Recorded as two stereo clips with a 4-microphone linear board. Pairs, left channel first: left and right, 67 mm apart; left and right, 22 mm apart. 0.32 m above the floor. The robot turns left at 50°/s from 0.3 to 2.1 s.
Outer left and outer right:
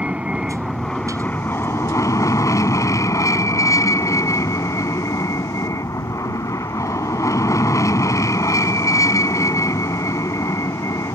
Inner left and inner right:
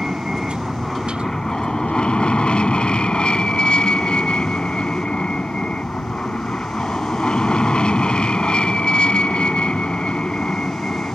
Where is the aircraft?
160° right; by 11.1 s 110° left.